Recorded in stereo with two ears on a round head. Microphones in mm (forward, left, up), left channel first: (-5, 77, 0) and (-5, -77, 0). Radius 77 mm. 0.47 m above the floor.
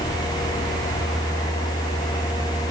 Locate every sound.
Only background noise.